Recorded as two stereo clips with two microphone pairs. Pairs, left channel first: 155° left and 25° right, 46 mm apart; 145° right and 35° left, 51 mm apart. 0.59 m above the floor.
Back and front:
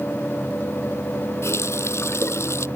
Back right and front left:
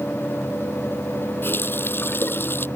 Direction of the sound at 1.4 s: 170° left.